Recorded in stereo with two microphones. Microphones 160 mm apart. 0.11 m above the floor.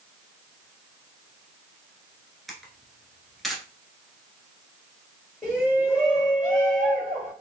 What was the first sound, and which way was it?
A camera shutter, centre (ahead or behind).